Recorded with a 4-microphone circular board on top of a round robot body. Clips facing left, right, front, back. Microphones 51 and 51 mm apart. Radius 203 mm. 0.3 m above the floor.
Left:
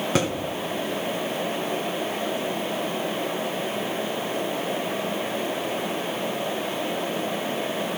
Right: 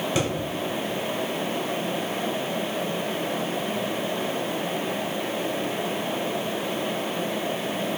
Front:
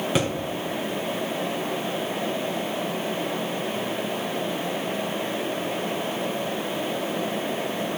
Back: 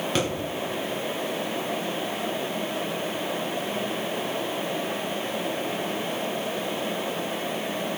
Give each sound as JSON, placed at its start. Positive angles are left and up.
{"t": 0.1, "sound": "a thud", "azimuth_deg": 80, "distance_m": 3.0}